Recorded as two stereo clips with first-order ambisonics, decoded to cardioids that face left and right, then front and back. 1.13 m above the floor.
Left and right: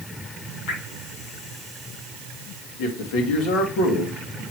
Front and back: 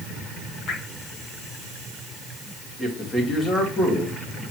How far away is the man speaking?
About 2 m.